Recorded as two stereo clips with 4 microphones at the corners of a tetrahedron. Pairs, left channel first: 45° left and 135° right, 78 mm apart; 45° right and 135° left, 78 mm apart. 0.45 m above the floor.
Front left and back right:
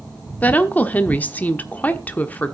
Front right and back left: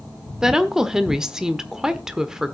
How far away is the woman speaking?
About 1.0 m.